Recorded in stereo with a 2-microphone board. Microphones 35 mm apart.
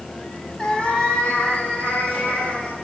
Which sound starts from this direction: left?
A cat meowing, at 0.6 s.